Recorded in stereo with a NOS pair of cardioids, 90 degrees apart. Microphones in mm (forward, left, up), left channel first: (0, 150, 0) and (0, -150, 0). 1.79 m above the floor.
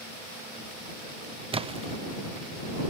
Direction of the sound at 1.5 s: 20° right.